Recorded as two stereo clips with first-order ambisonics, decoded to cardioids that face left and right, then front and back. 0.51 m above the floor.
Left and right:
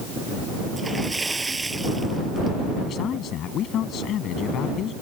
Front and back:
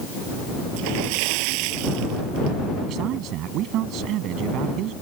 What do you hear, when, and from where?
0.8 s a splash: 170° right
2.9 s a man speaking: 140° left